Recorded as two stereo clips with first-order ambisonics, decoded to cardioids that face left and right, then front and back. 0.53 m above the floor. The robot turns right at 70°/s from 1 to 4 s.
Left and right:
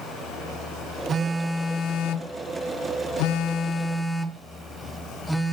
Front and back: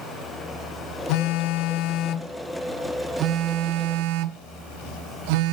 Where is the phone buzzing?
25° right, 0.6 m; by 5.5 s straight behind, 0.6 m.